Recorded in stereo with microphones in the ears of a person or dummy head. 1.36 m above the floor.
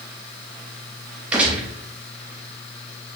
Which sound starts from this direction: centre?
A gunshot, at 1.3 s.